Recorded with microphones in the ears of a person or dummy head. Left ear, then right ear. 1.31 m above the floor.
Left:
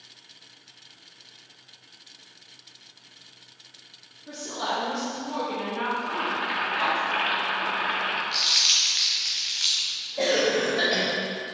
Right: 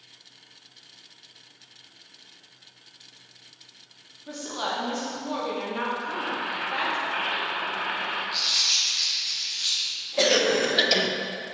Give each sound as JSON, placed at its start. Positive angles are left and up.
{"t": 4.3, "sound": "a woman speaking", "side_deg": -30, "distance_m": 2.0}
{"t": 6.0, "sound": "boiling", "side_deg": 25, "distance_m": 1.0}
{"t": 8.3, "sound": "crumpling", "side_deg": 30, "distance_m": 0.6}
{"t": 10.2, "sound": "a cough", "side_deg": -50, "distance_m": 1.0}